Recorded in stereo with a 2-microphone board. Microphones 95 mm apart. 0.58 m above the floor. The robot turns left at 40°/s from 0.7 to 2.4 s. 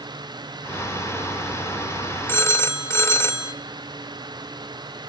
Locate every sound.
2.3 s a phone ringing: 25° left (ahead or behind), 1.1 m; by 3.5 s 30° left (ahead or behind), 1.1 m